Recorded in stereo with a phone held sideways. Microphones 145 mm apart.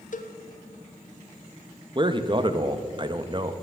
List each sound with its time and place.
0.1 s a cowbell: 60° left (ahead or behind), 0.6 m
1.9 s a man speaking: 35° right (ahead or behind), 0.5 m